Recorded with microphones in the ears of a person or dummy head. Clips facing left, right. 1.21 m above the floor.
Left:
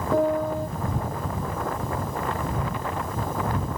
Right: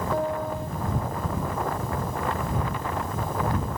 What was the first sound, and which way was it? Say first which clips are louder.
A piano: left 7 dB; 75° left (ahead or behind).